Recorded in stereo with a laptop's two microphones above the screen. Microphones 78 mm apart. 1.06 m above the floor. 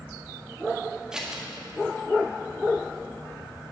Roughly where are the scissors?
Centre.